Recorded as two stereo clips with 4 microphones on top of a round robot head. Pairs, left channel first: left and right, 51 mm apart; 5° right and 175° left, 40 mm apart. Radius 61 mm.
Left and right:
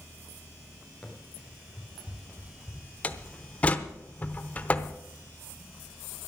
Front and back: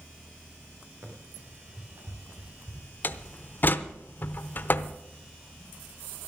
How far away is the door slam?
About 0.8 m.